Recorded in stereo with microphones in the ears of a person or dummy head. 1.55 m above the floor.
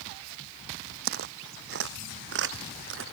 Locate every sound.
1.1 s footsteps: 60° right (ahead or behind); by 3.0 s 70° right (ahead or behind)